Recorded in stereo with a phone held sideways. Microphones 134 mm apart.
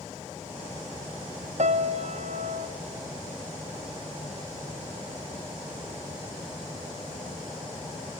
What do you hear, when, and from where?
1.6 s a piano: 55° right (ahead or behind), 0.8 m